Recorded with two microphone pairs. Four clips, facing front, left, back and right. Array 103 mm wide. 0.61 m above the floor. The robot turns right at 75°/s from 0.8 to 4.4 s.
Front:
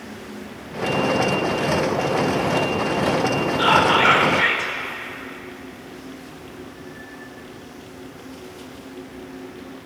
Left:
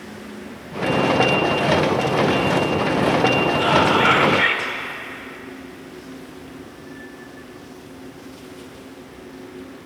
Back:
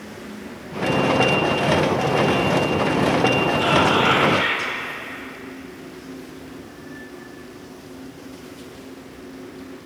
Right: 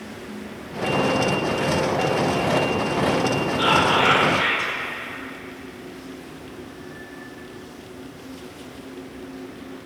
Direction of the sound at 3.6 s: 5° right.